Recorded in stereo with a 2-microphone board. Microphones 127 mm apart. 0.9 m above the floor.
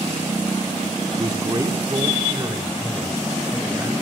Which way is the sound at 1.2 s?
30° right (ahead or behind).